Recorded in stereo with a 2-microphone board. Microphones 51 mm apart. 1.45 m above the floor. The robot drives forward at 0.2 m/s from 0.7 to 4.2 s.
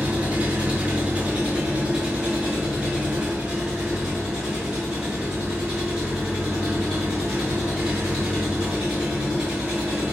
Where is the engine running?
25° right (ahead or behind), 1.0 m; by 10.1 s 15° right (ahead or behind), 1.7 m.